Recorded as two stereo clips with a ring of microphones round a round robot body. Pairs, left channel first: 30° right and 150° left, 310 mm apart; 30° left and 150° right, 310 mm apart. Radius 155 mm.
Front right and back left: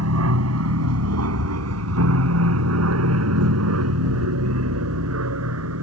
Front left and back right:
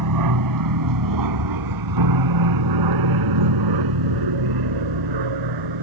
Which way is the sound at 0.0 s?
170° right.